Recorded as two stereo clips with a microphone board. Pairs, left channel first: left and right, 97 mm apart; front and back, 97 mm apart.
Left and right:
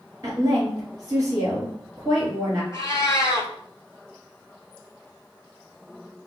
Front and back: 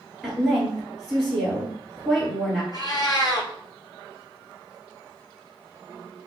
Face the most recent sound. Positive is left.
turn(degrees=40)